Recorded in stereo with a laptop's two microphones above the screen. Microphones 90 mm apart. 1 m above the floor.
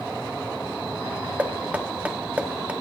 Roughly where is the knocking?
Centre.